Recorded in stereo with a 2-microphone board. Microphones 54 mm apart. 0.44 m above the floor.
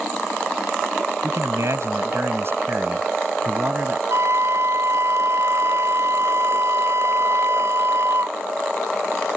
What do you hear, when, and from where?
1.2 s a man speaking: 70° right (ahead or behind); by 4.0 s 30° right (ahead or behind)
4.1 s a flute: 70° right (ahead or behind)